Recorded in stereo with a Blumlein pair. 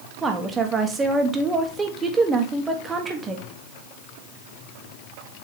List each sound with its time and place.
0.2 s a woman speaking: 15° right, 1.5 m